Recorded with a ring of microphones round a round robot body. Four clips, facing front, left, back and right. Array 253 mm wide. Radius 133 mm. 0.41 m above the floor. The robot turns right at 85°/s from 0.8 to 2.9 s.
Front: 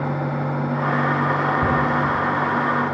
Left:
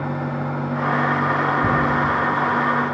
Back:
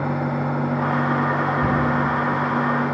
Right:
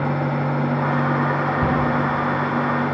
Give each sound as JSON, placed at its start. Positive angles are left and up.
{"t": 1.6, "sound": "a cupboard door", "azimuth_deg": -70, "distance_m": 7.0}